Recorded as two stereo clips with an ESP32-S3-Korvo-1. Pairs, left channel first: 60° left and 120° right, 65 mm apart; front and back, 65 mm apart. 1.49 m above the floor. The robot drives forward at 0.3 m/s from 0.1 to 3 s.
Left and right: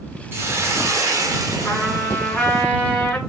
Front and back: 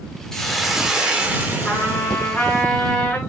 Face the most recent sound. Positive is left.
turn(degrees=5)